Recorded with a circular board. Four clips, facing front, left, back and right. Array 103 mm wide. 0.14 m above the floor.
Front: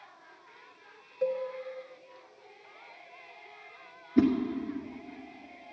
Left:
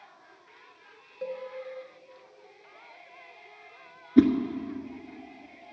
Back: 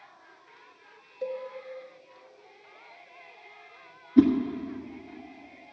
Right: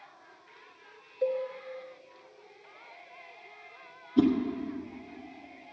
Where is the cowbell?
25° left, 1.6 m.